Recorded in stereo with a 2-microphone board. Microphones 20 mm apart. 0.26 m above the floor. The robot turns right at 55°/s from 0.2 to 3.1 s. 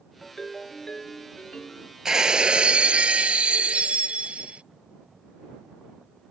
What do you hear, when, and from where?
0.2 s a ringtone: 5° left; by 1.9 s 100° left
2.0 s breaking glass: 155° right; by 4.6 s 95° right